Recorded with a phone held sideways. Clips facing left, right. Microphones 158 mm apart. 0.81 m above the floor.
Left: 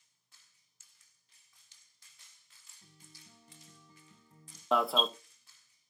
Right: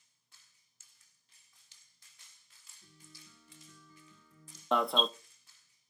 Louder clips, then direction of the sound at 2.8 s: Right 2 dB; 55° left (ahead or behind).